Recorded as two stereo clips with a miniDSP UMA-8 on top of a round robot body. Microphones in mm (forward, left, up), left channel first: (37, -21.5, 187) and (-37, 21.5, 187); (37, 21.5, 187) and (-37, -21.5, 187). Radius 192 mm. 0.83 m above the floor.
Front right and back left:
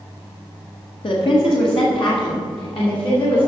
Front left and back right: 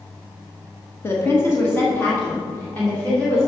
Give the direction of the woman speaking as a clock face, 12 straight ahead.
1 o'clock.